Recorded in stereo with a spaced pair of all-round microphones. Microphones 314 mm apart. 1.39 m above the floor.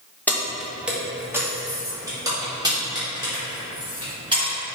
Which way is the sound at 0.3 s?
5° left (ahead or behind).